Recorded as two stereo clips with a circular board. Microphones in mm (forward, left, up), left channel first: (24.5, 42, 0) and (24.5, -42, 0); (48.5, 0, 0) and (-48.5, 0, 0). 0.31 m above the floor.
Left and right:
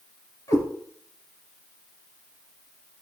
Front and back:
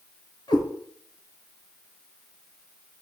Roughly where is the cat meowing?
Ahead left.